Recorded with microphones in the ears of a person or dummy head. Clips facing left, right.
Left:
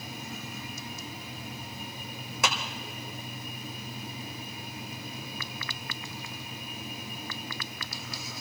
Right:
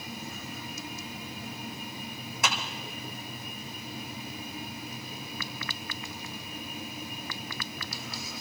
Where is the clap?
70° left (ahead or behind), 1.9 m.